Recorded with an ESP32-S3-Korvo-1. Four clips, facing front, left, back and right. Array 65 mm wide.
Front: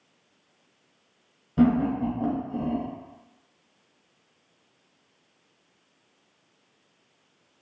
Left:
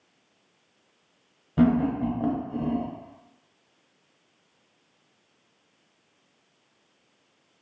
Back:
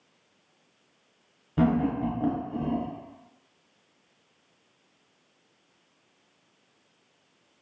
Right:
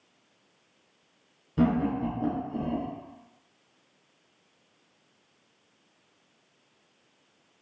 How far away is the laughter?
About 1.2 m.